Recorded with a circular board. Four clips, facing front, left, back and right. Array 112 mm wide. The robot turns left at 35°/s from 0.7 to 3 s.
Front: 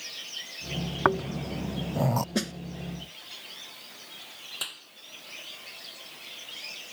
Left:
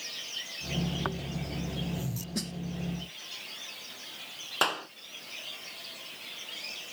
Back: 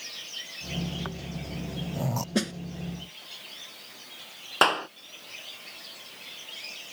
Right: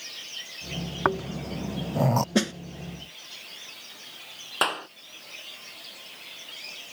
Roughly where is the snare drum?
Right.